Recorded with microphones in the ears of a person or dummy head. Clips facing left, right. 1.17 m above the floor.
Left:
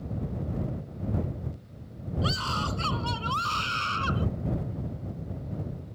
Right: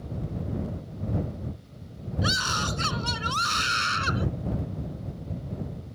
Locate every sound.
2.2 s a scream: 25° right (ahead or behind); by 4.3 s 30° right (ahead or behind)